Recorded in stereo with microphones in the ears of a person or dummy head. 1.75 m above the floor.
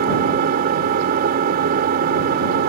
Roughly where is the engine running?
Right.